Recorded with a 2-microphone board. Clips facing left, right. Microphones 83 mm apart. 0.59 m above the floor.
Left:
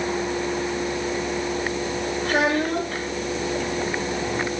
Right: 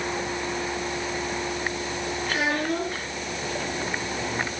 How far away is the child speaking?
About 8 m.